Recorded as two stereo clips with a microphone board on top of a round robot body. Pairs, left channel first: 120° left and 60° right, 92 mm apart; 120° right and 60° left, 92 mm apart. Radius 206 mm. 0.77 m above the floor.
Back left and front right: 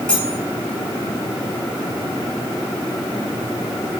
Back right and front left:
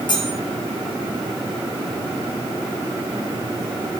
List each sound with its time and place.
0.1 s cutlery clinking: 160° right, 5 m